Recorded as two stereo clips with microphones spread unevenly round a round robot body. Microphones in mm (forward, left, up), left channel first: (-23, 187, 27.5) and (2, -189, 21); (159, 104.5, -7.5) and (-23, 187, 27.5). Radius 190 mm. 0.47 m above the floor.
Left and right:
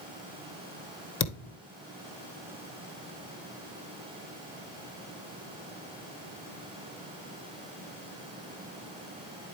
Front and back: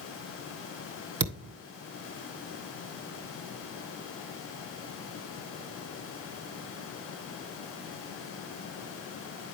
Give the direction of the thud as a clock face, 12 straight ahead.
7 o'clock.